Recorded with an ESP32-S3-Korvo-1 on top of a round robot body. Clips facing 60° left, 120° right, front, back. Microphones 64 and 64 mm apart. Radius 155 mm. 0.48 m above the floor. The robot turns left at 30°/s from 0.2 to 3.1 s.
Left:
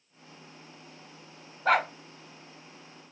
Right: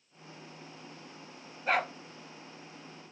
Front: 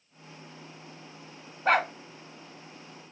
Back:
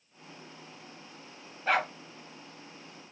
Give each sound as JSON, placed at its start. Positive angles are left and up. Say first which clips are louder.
{"t": 1.6, "sound": "a dog barking", "louder": "left 5 dB, front 4 dB", "azimuth_deg": 45, "distance_m": 0.8}